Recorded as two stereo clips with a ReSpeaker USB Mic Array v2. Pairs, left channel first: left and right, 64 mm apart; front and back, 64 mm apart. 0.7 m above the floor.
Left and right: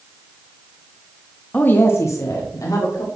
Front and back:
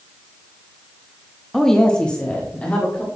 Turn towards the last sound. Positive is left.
turn(degrees=70)